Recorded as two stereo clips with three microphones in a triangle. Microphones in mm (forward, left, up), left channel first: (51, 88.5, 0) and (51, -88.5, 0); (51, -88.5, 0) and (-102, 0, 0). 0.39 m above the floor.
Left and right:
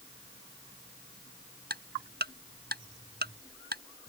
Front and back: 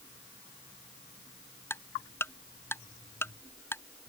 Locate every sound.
1.7 s ticking: 105° right